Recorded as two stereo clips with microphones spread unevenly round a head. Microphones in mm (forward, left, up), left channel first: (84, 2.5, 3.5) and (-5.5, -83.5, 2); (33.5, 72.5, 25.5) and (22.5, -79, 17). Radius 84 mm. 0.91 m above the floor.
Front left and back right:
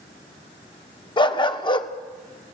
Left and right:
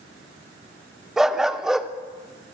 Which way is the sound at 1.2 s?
5° right.